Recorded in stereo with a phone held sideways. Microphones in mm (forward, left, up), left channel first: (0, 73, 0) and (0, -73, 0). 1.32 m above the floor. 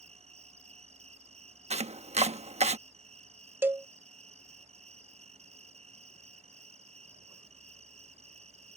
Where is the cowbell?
15° right (ahead or behind).